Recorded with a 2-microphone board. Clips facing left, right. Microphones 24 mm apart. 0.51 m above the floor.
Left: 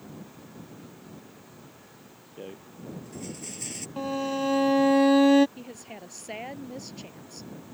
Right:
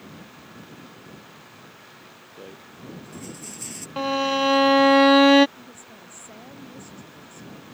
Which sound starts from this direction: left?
A woman speaking, at 5.6 s.